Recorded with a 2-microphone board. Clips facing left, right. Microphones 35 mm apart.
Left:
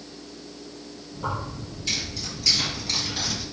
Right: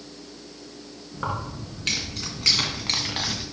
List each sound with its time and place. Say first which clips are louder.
1.1 s keys jangling: right 1 dB; 70° right (ahead or behind), 2.5 m; by 3.4 s 35° right (ahead or behind), 1.4 m